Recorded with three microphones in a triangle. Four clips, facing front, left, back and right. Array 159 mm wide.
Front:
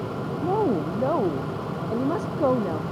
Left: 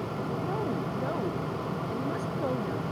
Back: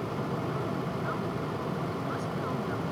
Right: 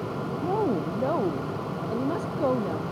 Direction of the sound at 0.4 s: 25° right.